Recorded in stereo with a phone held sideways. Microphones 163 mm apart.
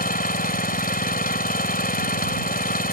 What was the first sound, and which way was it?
An engine running, 65° left (ahead or behind).